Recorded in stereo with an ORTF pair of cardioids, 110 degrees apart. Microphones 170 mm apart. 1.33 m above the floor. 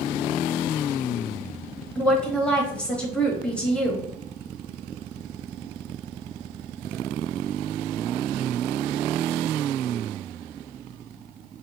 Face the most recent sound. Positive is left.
turn(degrees=5)